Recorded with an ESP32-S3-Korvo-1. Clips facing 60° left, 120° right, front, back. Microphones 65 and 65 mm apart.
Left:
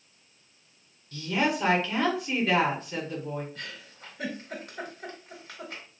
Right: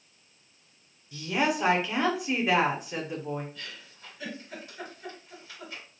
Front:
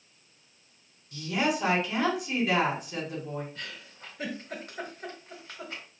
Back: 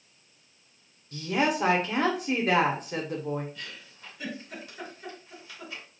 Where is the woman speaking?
170° left, 0.9 m.